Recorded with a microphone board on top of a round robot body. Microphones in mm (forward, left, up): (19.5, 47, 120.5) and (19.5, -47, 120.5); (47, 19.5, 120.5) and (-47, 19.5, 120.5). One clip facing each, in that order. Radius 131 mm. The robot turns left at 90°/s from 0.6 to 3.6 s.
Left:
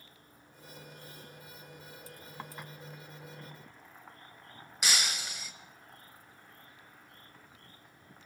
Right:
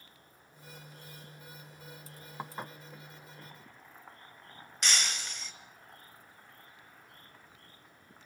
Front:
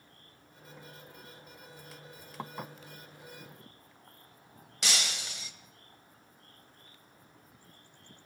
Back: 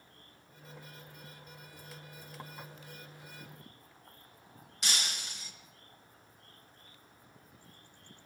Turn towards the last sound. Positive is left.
turn(degrees=10)